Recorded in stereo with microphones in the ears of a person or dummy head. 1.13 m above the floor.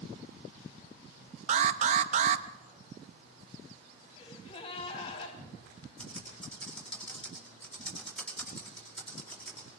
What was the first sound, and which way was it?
An alarm, 35° right (ahead or behind).